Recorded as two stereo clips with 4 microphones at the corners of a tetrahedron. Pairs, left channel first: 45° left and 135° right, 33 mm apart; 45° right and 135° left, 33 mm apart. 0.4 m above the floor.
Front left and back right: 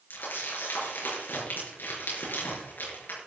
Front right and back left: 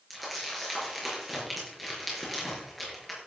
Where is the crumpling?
50° left, 5 m.